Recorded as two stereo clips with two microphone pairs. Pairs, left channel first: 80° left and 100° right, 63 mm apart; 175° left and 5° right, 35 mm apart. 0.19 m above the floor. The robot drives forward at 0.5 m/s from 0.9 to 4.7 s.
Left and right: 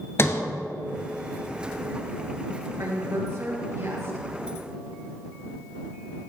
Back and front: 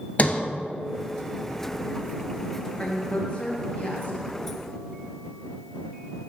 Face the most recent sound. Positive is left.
turn(degrees=-140)